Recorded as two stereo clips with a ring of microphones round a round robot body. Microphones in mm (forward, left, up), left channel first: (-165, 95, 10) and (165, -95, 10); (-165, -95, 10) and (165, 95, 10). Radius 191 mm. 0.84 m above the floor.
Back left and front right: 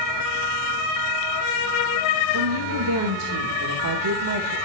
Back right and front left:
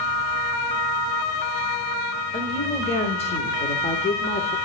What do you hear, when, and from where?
2.3 s a woman speaking: 75° right, 3.5 m